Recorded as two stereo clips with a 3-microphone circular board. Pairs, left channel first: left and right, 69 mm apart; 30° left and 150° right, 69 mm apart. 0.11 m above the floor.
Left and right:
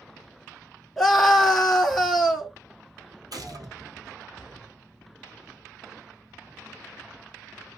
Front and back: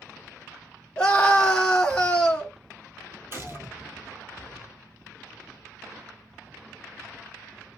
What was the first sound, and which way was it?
A scream, 5° right.